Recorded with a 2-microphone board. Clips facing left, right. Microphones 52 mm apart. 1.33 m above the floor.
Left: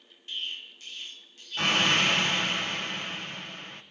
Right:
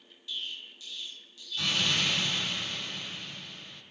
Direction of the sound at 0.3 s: 45° left (ahead or behind).